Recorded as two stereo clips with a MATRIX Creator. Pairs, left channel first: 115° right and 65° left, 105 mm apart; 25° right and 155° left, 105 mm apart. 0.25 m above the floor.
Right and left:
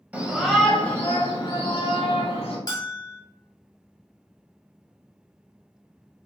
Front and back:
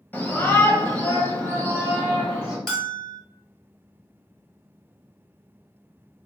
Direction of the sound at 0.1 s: 15° left.